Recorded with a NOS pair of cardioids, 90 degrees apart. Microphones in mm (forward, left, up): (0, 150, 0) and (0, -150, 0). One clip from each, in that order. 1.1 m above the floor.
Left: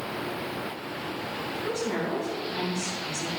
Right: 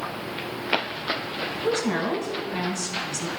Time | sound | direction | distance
1.6 | a woman speaking | 60° right | 5 m